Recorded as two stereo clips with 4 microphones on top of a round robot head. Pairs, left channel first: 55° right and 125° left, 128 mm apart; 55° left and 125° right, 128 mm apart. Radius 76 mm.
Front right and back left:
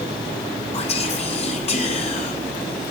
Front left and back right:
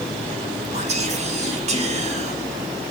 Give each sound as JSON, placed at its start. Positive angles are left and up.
{"t": 0.7, "sound": "whispering", "azimuth_deg": -95, "distance_m": 1.5}